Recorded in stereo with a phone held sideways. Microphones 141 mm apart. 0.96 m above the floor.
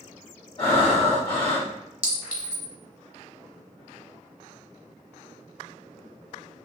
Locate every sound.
0.6 s breathing: 40° left (ahead or behind), 1.6 m
2.0 s a clink: 70° left (ahead or behind), 1.2 m